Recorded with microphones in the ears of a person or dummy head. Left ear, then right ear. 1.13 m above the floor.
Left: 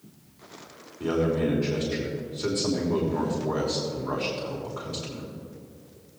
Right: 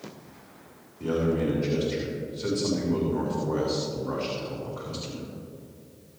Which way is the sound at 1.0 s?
25° left (ahead or behind).